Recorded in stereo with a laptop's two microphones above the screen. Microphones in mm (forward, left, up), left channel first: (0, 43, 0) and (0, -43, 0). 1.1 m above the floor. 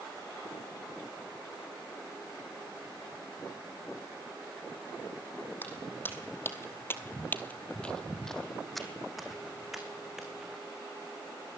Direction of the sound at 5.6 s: 25° left (ahead or behind).